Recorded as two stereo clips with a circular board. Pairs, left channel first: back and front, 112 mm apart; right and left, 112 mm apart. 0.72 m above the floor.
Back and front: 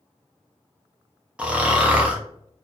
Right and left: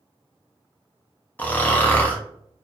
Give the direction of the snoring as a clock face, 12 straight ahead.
2 o'clock.